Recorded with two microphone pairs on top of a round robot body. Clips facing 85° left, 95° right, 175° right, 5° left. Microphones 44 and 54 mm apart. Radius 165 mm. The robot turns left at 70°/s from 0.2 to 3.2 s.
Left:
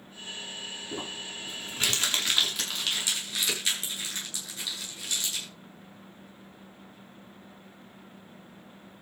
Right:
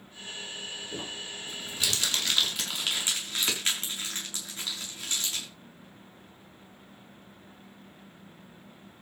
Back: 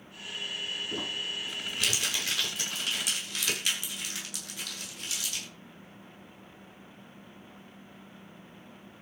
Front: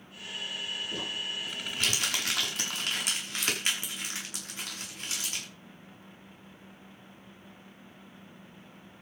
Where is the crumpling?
120° left, 7 m; by 5.5 s 40° right, 7 m.